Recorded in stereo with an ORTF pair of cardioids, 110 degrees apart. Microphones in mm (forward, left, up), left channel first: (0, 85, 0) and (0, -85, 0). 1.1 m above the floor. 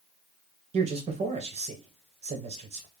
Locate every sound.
0.7 s a man speaking: 40° right, 1.2 m